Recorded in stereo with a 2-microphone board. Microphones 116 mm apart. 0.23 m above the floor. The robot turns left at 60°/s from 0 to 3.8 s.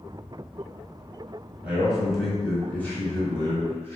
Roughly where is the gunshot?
I don't hear a gunshot.